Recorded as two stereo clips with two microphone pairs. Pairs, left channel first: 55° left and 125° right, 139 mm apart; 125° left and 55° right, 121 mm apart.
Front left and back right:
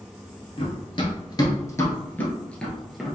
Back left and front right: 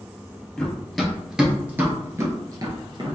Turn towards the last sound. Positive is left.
turn(degrees=-40)